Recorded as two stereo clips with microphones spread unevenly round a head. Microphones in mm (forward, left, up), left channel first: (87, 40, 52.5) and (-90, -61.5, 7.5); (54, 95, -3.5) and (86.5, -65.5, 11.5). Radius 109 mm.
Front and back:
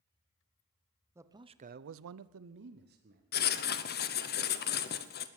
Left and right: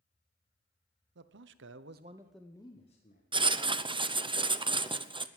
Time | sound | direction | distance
1.1 | a man speaking | 70° right | 1.2 m
3.3 | writing | 15° right | 0.9 m